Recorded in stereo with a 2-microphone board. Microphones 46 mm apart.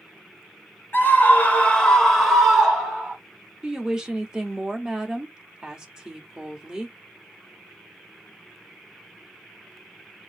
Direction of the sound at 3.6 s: 15° right (ahead or behind).